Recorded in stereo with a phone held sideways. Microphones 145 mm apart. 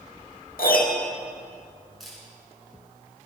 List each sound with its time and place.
0.6 s a piano: 75° left (ahead or behind), 2.5 m
2.0 s a camera shutter: centre (ahead or behind), 6 m